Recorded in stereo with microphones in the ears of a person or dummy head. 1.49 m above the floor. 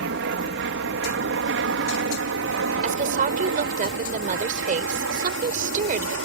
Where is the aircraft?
65° right (ahead or behind); by 6.2 s 70° right (ahead or behind).